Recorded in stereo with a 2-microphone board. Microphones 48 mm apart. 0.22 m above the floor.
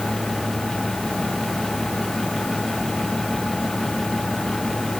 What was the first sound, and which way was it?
Only background noise.